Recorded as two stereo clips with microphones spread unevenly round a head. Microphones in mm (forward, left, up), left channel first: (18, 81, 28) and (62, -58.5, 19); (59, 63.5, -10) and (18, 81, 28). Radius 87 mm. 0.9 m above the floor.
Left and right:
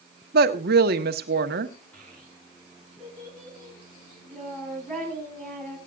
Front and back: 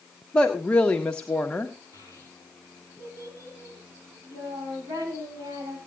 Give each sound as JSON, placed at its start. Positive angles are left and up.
{"t": 0.3, "sound": "a woman speaking", "azimuth_deg": -95, "distance_m": 1.3}
{"t": 1.9, "sound": "a child speaking", "azimuth_deg": -170, "distance_m": 5.5}